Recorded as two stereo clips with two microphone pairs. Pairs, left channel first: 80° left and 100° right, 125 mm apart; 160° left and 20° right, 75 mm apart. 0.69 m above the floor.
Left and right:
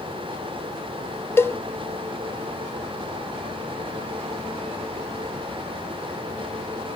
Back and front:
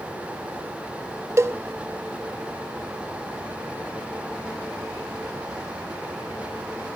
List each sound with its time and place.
1.4 s a cowbell: 20° left, 0.5 m